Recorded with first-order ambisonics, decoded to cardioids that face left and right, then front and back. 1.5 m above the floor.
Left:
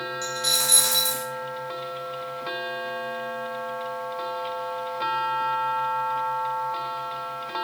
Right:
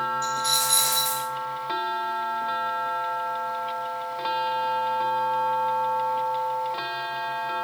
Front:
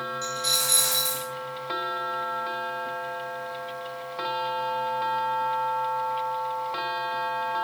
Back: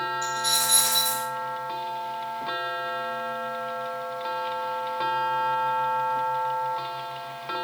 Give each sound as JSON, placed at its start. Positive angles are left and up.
{"t": 0.2, "sound": "a dropped coin", "azimuth_deg": 75, "distance_m": 1.3}